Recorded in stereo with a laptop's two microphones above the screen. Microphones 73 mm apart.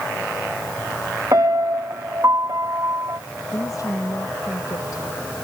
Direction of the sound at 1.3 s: 50° right (ahead or behind).